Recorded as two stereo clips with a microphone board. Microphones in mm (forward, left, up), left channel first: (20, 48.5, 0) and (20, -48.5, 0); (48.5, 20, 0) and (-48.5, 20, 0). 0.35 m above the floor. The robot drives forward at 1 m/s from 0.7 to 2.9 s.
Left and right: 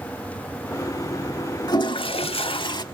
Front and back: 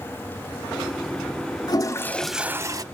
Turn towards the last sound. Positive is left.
turn(degrees=135)